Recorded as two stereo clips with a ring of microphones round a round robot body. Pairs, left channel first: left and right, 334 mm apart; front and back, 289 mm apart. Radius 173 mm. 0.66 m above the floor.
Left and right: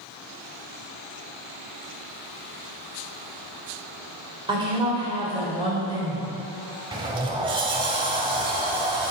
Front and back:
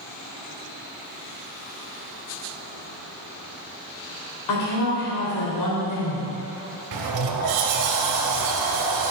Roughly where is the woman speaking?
Ahead.